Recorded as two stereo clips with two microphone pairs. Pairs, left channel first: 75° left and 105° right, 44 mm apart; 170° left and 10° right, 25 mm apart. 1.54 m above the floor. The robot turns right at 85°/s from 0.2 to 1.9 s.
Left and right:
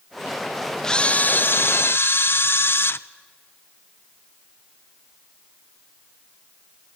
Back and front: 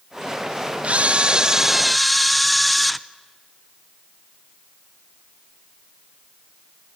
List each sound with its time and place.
0.8 s a camera shutter: 5° right, 0.6 m; by 3.0 s 85° left, 0.6 m